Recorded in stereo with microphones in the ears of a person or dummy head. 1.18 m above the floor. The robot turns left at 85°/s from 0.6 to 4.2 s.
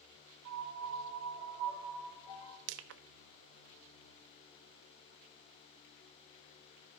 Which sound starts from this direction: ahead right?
A piano, at 0.5 s.